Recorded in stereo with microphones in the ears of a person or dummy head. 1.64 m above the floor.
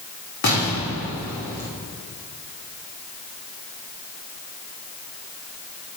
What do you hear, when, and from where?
0.4 s an explosion: 60° left (ahead or behind), 3.5 m